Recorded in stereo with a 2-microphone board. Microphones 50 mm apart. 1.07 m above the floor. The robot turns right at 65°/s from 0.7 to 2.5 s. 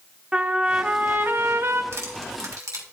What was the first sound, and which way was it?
A trumpet, 165° right.